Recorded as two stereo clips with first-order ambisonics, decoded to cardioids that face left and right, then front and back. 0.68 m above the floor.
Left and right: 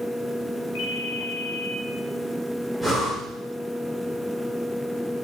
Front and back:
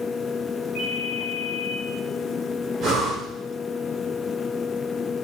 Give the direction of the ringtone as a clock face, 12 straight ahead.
10 o'clock.